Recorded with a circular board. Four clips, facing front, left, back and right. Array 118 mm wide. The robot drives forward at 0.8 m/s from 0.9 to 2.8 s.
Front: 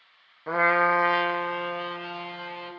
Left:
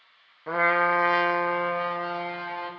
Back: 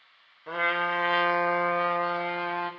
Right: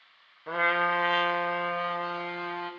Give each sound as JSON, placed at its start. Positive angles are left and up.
{"t": 0.5, "sound": "a trumpet", "azimuth_deg": 30, "distance_m": 0.6}